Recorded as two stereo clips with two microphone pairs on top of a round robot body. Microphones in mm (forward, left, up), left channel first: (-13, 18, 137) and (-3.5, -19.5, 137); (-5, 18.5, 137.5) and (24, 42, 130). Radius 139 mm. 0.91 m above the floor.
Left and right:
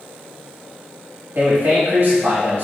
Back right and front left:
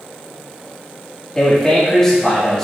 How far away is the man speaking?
About 1.4 m.